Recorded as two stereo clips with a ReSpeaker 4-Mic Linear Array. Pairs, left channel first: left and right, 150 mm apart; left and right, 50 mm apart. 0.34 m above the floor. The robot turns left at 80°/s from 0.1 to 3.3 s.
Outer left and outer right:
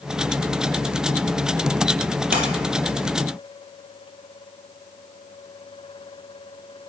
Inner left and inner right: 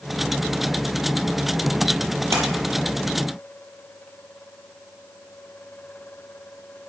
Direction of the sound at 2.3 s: 75° right (ahead or behind).